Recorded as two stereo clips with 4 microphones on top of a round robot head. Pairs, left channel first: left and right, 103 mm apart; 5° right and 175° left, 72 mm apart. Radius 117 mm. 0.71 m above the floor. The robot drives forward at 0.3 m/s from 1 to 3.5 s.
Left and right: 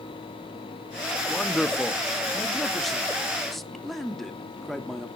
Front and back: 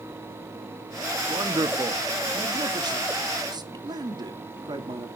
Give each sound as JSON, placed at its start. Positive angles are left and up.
{"t": 1.3, "sound": "a man speaking", "azimuth_deg": 180, "distance_m": 1.1}